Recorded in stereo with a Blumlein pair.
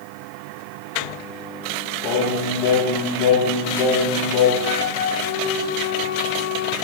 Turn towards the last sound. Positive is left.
turn(degrees=50)